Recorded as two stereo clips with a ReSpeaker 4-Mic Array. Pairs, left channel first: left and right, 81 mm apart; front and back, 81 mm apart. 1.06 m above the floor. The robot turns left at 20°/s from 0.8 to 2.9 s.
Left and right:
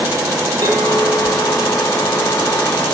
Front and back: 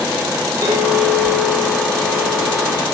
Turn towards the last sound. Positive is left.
turn(degrees=-170)